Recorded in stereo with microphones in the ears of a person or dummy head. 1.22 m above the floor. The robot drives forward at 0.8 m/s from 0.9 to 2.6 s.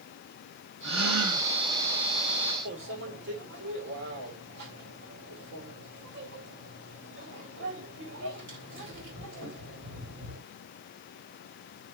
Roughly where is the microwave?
Right.